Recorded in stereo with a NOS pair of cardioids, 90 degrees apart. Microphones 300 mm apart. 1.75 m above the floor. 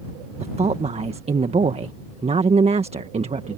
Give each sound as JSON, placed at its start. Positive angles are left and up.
{"t": 0.4, "sound": "a woman speaking", "azimuth_deg": -20}